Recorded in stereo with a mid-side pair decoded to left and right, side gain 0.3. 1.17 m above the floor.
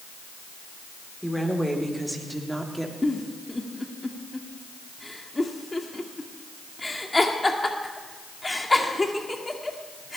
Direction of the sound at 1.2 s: Straight ahead.